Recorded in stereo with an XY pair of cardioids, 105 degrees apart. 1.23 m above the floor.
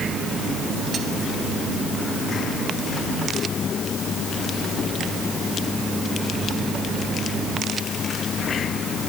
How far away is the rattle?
No rattle in this recording.